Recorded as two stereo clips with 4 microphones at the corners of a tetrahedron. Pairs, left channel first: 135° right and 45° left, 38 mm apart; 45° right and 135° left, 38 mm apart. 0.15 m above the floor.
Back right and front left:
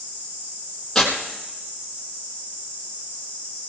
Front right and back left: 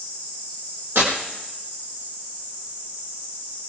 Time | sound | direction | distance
0.9 | tearing paper | 145° left | 4.5 m